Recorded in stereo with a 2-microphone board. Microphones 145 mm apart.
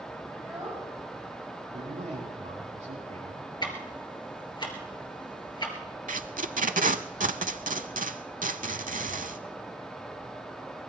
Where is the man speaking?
65° right (ahead or behind), 6.5 m.